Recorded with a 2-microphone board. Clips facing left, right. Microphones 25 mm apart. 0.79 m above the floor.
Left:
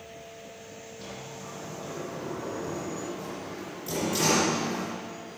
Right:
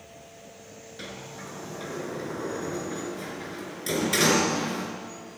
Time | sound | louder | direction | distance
1.0 | a sliding door | right 3 dB | 80° right | 4.5 m